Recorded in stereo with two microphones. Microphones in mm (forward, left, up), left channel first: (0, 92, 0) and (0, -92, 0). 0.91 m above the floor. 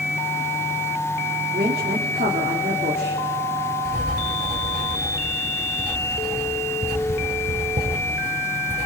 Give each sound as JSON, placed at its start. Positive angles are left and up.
{"t": 1.5, "sound": "a woman speaking", "side_deg": -60, "distance_m": 2.5}
{"t": 3.9, "sound": "writing", "side_deg": -60, "distance_m": 8.0}